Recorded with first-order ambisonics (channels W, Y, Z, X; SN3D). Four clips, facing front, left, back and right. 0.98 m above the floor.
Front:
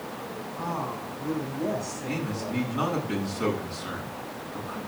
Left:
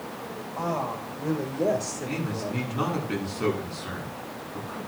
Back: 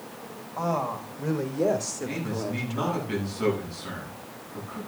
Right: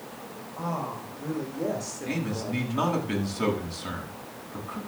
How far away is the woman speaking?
About 4.5 m.